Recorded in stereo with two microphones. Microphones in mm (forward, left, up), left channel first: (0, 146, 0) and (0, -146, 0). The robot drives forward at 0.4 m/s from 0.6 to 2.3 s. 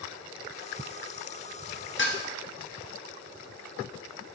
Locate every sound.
2.0 s dishes clattering: 40° left (ahead or behind), 0.8 m; by 2.2 s 35° left (ahead or behind), 0.9 m